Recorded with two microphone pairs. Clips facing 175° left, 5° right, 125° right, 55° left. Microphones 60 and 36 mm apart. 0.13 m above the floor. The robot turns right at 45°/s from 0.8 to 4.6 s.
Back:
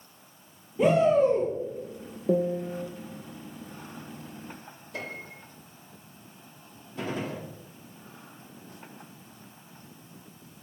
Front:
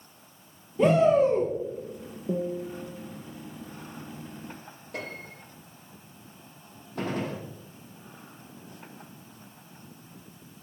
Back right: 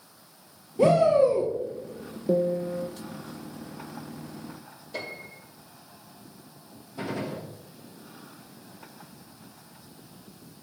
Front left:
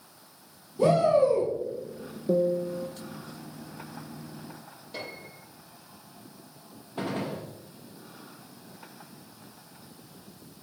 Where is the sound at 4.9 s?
30° right, 4.5 m.